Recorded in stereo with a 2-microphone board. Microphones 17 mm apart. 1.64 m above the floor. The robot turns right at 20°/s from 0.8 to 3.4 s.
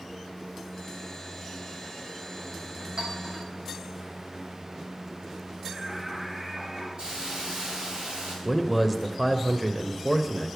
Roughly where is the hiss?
Right.